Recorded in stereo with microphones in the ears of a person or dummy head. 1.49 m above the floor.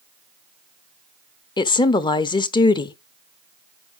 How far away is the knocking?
I don't hear knocking.